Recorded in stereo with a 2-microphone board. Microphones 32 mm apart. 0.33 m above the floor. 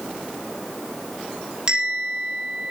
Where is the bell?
30° right (ahead or behind), 7 m.